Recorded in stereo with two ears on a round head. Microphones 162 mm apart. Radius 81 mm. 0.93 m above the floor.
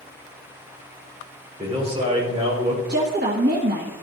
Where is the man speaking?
35° right (ahead or behind), 4 m.